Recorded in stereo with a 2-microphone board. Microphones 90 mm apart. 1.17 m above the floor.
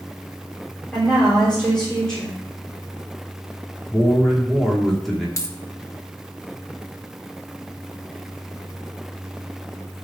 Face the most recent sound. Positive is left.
turn(degrees=40)  # may be behind; listen again after turning